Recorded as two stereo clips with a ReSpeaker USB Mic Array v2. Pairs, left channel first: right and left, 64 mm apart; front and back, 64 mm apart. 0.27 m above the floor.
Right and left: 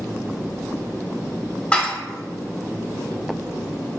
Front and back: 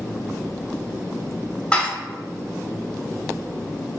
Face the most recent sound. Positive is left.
turn(degrees=-45)